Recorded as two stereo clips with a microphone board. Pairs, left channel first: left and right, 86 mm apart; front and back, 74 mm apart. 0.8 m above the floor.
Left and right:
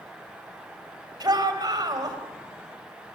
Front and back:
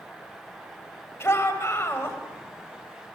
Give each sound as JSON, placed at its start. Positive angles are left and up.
{"t": 1.2, "sound": "a shout", "azimuth_deg": -55, "distance_m": 4.0}